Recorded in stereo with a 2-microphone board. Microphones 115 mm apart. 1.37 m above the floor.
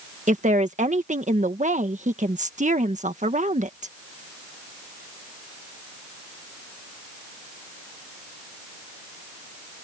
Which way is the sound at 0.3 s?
80° right.